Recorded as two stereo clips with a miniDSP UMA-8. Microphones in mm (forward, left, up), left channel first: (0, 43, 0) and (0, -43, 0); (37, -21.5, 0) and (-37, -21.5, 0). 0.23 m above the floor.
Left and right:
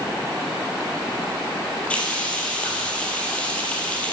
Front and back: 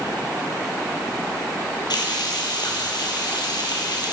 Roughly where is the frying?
Ahead.